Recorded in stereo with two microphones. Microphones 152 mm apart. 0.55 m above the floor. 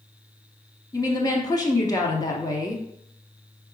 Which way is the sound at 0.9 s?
25° left (ahead or behind).